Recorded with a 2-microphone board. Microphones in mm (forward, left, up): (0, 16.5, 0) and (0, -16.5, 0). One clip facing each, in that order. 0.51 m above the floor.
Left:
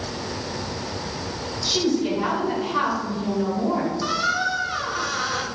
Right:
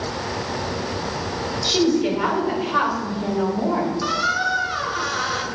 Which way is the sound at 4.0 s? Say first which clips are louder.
Right 2 dB; 10° right (ahead or behind).